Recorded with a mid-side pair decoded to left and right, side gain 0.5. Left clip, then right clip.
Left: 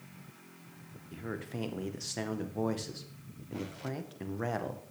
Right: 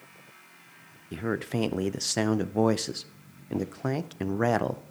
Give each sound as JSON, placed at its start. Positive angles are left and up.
{"t": 1.1, "sound": "a man speaking", "azimuth_deg": -55, "distance_m": 0.6}